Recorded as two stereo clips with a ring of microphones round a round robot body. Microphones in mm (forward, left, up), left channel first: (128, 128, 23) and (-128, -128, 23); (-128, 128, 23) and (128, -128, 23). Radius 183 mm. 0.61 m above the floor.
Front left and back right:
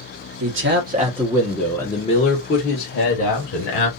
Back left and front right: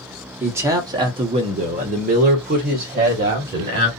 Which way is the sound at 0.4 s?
125° right.